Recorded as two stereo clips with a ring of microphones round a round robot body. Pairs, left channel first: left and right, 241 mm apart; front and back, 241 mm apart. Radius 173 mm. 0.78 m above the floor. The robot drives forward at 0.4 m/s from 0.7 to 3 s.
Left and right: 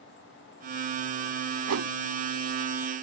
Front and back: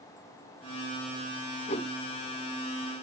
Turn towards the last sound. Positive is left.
turn(degrees=-85)